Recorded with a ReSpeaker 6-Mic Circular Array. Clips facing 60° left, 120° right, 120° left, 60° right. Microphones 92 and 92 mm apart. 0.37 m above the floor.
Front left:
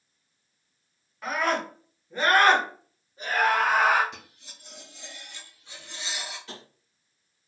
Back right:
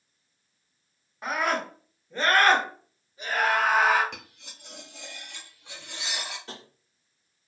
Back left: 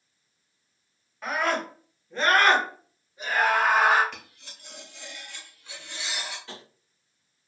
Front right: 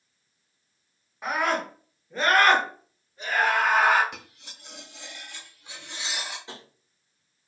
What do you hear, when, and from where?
1.2 s a scream: 95° right, 1.1 m; by 4.0 s 50° left, 1.6 m
4.1 s cutlery clinking: 130° right, 0.9 m
6.5 s tapping: 115° right, 1.0 m